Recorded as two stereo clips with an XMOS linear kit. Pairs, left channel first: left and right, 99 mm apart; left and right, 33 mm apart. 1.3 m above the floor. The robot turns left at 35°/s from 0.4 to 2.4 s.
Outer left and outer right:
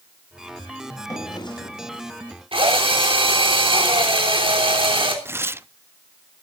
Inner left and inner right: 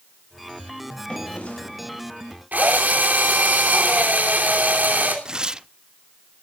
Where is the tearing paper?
25° right (ahead or behind), 0.5 m.